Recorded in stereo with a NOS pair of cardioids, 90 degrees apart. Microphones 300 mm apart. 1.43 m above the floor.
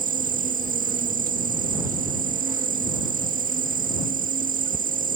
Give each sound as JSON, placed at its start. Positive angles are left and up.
{"t": 0.0, "sound": "an insect", "azimuth_deg": -25}